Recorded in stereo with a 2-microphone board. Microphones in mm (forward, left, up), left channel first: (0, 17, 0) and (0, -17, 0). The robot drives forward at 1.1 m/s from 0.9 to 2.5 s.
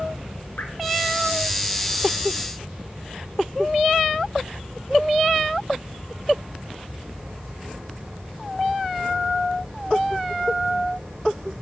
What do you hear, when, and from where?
0.6 s dripping: 70° left (ahead or behind), 2.5 m